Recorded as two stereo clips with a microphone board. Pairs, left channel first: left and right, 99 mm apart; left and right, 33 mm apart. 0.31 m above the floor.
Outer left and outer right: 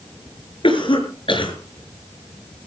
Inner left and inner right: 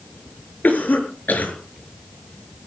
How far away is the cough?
About 6 m.